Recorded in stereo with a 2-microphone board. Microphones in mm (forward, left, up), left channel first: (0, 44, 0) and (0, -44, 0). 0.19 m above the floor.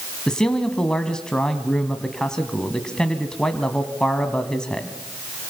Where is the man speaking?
10° left (ahead or behind), 1.8 m.